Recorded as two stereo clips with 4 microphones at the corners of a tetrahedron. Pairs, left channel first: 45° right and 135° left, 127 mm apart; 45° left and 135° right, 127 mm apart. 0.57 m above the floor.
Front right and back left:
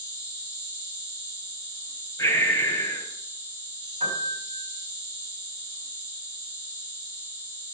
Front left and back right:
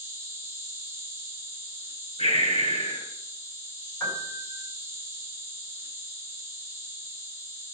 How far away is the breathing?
About 5 m.